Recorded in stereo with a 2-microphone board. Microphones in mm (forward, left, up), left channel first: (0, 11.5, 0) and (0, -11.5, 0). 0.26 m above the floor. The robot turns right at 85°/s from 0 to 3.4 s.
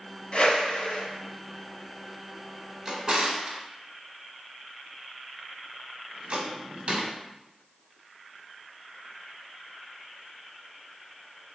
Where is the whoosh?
60° left, 0.8 m; by 1.0 s 120° left, 0.8 m.